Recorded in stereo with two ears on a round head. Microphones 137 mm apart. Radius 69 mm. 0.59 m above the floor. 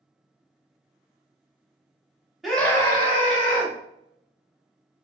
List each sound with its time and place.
2.4 s a scream: centre (ahead or behind), 1.2 m; by 3.7 s 55° left (ahead or behind), 1.9 m